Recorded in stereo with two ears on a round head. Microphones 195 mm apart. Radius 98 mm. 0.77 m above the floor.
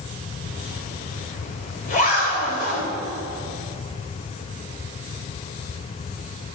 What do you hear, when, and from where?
0.4 s a zipper: 40° left (ahead or behind), 2.5 m